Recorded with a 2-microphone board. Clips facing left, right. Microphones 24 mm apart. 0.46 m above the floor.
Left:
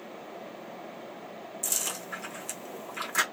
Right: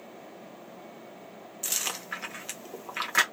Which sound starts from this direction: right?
Chewing, at 1.6 s.